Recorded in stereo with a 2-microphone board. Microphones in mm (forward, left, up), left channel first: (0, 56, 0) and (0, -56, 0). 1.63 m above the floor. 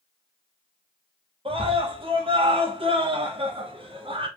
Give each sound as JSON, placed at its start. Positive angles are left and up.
{"t": 1.4, "sound": "a scream", "side_deg": -55, "distance_m": 2.5}